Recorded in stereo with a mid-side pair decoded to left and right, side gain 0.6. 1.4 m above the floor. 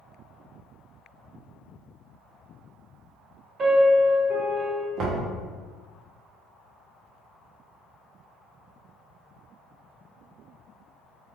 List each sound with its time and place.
3.6 s a piano: 40° right, 1.3 m
5.0 s knocking: 55° right, 0.8 m